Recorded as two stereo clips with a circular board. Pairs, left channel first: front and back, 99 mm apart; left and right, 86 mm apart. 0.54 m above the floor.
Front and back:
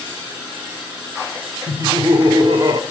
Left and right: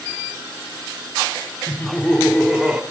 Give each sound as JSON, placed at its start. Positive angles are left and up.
{"t": 1.7, "sound": "laughter", "azimuth_deg": 145, "distance_m": 0.9}